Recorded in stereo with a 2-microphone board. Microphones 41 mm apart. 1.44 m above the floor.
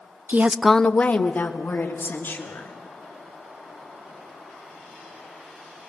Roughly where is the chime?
I don't hear a chime.